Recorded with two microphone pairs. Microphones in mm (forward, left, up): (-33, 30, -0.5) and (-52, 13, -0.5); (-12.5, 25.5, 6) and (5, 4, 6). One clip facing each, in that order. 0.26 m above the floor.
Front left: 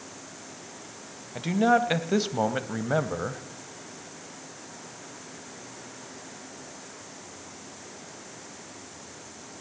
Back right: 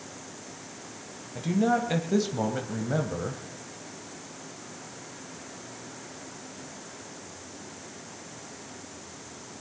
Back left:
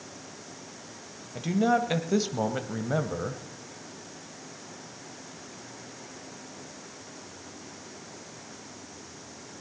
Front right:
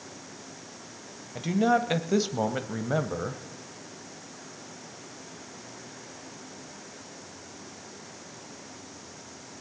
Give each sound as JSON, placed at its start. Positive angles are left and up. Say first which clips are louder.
{"t": 1.4, "sound": "a man speaking", "louder": "front left 3 dB, front right 1 dB", "azimuth_deg": 25, "distance_m": 1.3}